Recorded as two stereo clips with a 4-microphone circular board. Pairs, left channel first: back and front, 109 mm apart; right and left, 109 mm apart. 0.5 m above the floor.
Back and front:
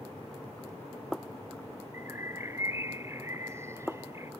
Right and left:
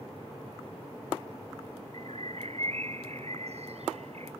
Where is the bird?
65° left.